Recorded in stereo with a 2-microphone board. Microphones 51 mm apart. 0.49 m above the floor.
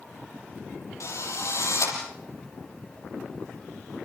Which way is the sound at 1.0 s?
70° left (ahead or behind).